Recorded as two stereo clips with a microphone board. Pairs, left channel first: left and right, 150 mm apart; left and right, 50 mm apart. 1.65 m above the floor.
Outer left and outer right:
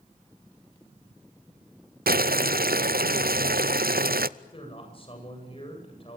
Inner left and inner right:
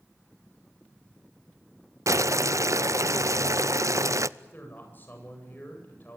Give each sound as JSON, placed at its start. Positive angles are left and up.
{"t": 2.1, "sound": "boiling", "side_deg": -85, "distance_m": 0.5}
{"t": 4.4, "sound": "a man speaking", "side_deg": 40, "distance_m": 9.0}